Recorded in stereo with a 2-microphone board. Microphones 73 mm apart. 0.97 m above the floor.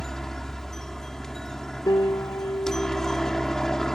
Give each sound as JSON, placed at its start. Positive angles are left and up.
{"t": 0.0, "sound": "a helicopter", "side_deg": 5}
{"t": 1.9, "sound": "a piano", "side_deg": 70}